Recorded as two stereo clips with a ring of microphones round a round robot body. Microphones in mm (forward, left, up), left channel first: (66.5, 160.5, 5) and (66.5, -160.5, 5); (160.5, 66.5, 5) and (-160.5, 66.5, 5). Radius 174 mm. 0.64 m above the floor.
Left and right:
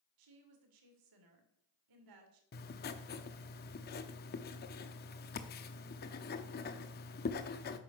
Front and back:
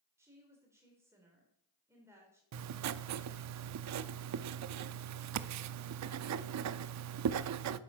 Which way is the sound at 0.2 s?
100° right.